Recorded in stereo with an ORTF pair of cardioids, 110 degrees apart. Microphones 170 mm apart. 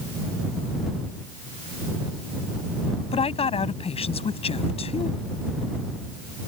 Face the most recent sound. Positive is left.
turn(degrees=35)